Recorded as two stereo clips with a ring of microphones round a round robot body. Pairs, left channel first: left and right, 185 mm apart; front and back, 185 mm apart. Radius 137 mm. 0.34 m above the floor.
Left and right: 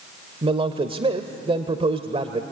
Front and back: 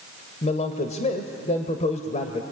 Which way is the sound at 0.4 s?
40° right.